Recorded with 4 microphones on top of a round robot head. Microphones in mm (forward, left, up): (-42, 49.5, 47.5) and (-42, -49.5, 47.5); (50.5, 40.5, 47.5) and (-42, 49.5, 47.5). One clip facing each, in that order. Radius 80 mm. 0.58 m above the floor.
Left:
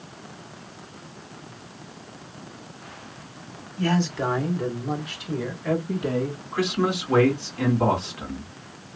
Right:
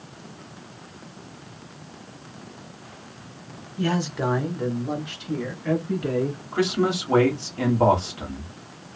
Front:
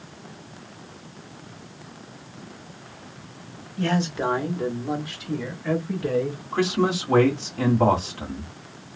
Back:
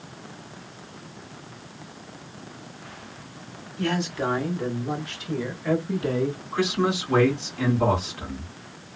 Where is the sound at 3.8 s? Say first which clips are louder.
Left 1 dB, front 2 dB; 20° right, 1.4 m; by 6.4 s 140° left, 1.3 m.